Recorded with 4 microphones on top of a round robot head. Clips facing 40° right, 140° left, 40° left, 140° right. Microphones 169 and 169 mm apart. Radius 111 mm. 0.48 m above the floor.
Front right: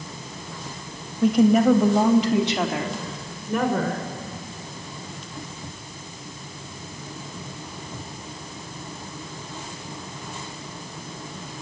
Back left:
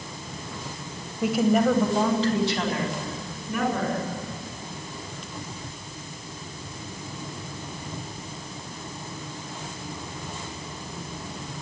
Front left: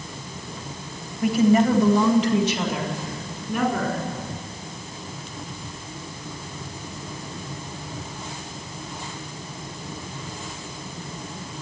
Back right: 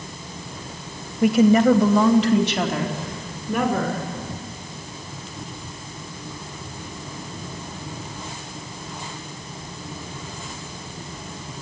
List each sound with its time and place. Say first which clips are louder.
1.2 s a woman speaking: front right 4 dB, back right 3 dB; 140° right, 2.5 m; by 4.0 s 95° right, 5.5 m